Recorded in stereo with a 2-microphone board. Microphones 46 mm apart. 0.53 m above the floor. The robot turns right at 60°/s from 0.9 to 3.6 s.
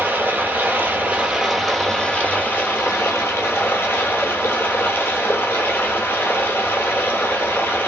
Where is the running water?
55° right, 1.1 m; by 7.9 s 110° left, 1.1 m.